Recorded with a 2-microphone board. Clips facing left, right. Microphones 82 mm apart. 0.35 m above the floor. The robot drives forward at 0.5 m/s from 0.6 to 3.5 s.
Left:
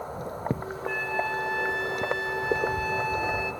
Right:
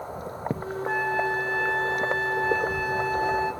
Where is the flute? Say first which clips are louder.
Right 4 dB; 40° right (ahead or behind), 1.6 m; by 3.5 s 35° right (ahead or behind), 1.7 m.